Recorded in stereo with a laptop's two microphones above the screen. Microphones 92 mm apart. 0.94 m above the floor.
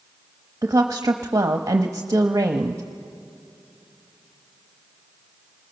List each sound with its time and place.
0.6 s a woman speaking: 35° right (ahead or behind), 0.9 m